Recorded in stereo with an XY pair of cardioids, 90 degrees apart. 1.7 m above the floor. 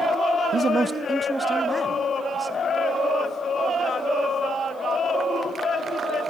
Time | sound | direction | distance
0.5 | a man speaking | 60° right | 0.5 m